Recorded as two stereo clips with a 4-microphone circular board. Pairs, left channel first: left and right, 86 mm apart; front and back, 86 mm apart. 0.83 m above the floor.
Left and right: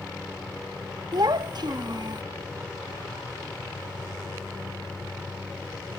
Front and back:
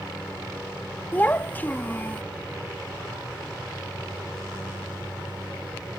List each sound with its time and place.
1.1 s a child speaking: 65° right